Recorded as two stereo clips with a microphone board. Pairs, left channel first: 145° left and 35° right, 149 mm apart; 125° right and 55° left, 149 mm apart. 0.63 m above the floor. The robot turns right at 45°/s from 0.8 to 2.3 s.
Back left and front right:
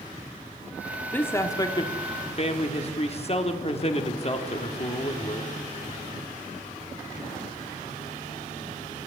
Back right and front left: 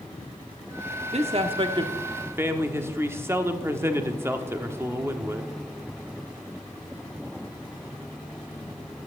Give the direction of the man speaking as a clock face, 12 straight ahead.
10 o'clock.